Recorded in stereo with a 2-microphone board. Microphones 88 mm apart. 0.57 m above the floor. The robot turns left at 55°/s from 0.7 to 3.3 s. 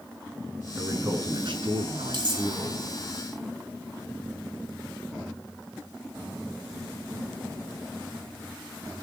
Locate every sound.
0.8 s a man speaking: 20° right, 7 m; by 2.8 s 130° right, 7 m
2.1 s cutlery clinking: 65° right (ahead or behind), 7 m; by 2.5 s 50° right (ahead or behind), 7 m